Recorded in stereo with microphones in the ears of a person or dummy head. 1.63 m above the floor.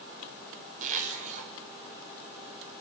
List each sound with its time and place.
0.8 s a zipper: 45° right (ahead or behind), 5.5 m